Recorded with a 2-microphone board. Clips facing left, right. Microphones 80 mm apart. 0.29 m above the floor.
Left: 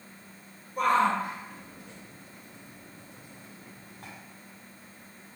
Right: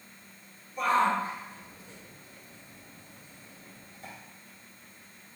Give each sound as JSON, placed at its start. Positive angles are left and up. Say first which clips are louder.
{"t": 0.8, "sound": "a shout", "louder": "left 1 dB", "side_deg": 55, "distance_m": 3.5}